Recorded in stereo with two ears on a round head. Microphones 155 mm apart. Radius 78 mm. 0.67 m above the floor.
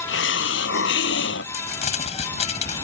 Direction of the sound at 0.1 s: 70° left (ahead or behind).